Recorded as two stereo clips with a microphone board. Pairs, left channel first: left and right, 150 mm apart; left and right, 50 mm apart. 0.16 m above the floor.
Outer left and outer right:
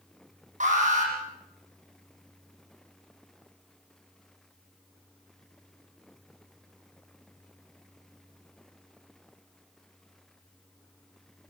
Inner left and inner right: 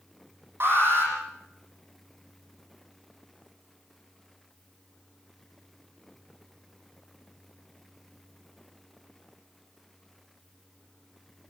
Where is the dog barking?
I don't hear a dog barking.